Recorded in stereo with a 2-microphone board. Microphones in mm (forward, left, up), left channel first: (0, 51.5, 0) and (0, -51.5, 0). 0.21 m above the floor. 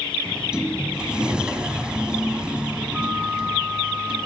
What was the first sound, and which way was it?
A sliding door, 10° right (ahead or behind).